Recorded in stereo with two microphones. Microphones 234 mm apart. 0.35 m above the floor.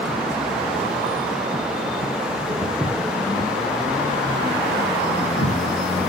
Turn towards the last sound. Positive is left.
turn(degrees=80)